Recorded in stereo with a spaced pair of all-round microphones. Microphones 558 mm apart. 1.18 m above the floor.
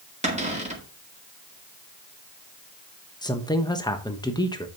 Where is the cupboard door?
10° right (ahead or behind), 1.9 m.